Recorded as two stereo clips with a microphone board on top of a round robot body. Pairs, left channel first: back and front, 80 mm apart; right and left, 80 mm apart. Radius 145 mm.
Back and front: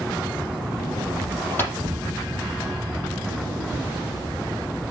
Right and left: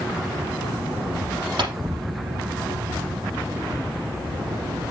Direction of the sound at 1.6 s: 115° left.